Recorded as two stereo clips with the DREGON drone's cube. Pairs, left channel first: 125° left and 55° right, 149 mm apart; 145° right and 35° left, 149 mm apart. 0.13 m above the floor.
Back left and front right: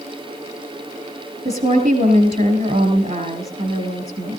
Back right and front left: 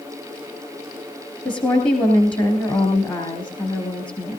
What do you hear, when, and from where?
1.4 s a woman speaking: 95° right, 3.5 m